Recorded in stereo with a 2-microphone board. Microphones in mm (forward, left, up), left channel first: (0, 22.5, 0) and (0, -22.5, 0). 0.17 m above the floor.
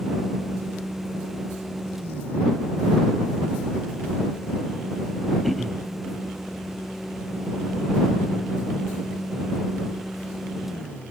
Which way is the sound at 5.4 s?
Centre (ahead or behind).